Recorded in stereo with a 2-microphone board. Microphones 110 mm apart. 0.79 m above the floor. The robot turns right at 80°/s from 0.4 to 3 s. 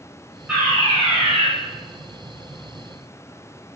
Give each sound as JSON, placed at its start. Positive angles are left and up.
{"t": 0.5, "sound": "a fire alarm", "azimuth_deg": -170, "distance_m": 4.5}